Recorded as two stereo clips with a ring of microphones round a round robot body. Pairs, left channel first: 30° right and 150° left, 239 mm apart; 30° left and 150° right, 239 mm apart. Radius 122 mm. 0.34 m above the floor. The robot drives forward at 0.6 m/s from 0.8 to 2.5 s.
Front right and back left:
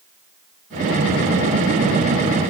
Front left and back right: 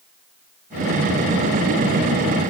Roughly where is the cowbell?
I don't hear a cowbell.